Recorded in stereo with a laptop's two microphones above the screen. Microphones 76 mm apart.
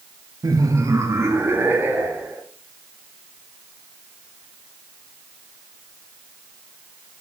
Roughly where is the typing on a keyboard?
No typing on a keyboard in this recording.